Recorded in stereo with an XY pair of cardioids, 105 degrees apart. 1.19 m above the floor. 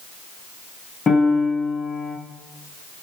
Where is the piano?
45° left, 8.5 m.